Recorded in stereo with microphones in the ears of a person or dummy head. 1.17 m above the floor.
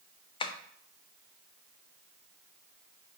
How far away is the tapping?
About 0.5 m.